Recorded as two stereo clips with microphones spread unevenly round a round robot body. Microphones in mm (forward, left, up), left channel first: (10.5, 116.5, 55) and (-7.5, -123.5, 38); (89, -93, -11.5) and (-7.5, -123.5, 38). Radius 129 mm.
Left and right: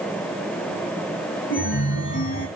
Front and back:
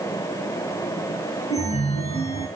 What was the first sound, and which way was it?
A chime, 40° left.